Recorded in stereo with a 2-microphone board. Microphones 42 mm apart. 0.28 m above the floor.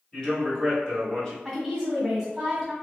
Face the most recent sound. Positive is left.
turn(degrees=-5)  # may be behind; listen again after turning